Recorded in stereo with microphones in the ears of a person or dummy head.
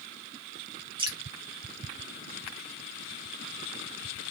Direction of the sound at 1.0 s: 35° right (ahead or behind).